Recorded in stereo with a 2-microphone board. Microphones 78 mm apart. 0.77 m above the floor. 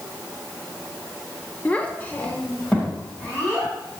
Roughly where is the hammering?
No hammering in this recording.